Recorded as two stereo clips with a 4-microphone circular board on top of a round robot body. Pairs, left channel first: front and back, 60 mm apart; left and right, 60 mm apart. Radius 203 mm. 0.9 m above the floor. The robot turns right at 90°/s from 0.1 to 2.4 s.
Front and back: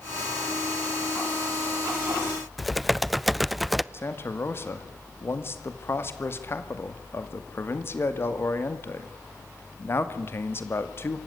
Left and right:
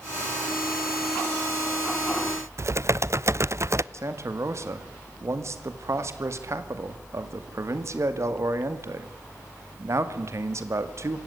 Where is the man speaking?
50° right, 2 m.